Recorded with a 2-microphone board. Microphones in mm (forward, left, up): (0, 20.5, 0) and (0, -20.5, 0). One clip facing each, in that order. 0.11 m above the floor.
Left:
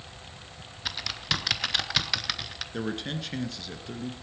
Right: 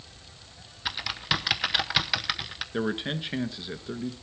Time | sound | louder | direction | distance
0.8 | typing on a keyboard | right 2 dB | 10° right (ahead or behind) | 1.0 m
2.7 | a man speaking | right 3 dB | 20° right (ahead or behind) | 1.3 m